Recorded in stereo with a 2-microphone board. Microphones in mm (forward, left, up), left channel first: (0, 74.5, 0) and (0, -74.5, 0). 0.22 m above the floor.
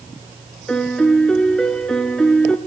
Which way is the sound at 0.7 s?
5° left (ahead or behind).